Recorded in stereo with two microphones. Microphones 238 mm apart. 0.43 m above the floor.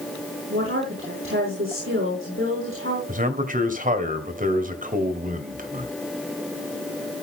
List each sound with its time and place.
0.5 s a woman speaking: 55° right (ahead or behind), 5.5 m
3.1 s a man speaking: 35° right (ahead or behind), 2 m